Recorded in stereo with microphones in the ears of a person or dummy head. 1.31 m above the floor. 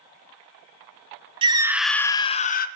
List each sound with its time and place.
1.4 s a scream: 25° right (ahead or behind), 0.6 m; by 2.7 s 45° left (ahead or behind), 0.7 m